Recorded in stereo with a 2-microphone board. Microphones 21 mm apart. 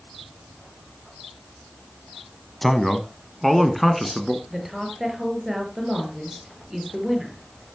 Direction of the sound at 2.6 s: 10° left (ahead or behind).